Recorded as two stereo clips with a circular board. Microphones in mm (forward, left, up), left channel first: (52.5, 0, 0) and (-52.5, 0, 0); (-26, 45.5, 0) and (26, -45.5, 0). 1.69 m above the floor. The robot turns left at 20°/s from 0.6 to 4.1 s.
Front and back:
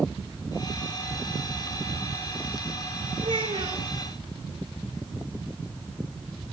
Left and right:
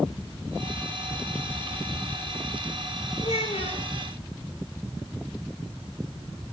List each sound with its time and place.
3.2 s a child speaking: 155° left, 5.5 m; by 3.8 s 140° left, 5.5 m